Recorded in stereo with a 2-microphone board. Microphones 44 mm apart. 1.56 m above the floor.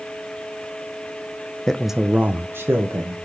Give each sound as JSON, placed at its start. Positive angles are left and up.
{"t": 1.7, "sound": "a man speaking", "side_deg": 15, "distance_m": 0.7}